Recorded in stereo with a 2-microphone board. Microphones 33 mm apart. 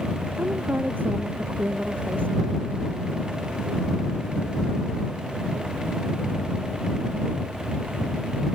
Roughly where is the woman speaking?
Right.